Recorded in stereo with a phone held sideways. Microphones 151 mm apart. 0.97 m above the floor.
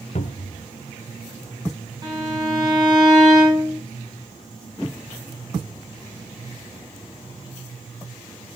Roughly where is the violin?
Right.